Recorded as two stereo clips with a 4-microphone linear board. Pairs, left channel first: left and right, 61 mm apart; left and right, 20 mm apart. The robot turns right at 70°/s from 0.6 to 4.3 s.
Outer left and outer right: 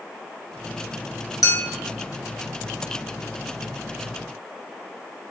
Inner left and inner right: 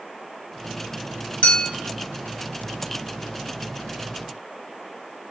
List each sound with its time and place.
1.4 s a clink: 70° left (ahead or behind), 1.3 m; by 1.7 s 75° left (ahead or behind), 1.3 m